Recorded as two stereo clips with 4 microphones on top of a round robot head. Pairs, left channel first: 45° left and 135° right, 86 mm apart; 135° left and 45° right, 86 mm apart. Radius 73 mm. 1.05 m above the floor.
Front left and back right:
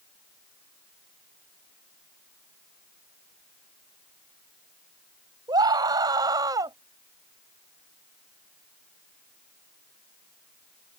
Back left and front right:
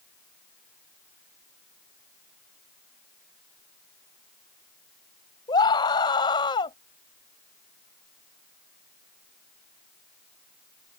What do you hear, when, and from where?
5.5 s a scream: straight behind; by 6.8 s 175° left